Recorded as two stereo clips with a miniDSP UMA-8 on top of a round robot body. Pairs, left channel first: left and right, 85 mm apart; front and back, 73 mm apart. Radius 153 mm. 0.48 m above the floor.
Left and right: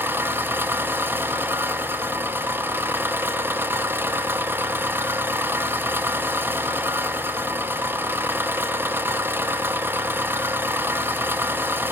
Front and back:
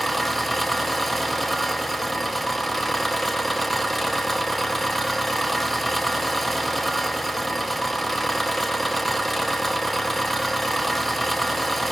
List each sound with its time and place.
0.0 s an engine running: 90° right, 0.8 m